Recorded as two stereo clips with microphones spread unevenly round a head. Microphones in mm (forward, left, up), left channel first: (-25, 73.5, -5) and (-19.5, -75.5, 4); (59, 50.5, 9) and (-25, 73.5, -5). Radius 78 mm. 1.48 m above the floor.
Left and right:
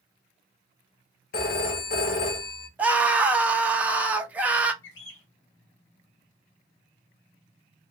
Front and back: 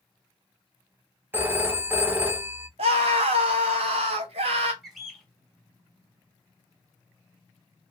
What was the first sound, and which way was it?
A phone ringing, 95° left.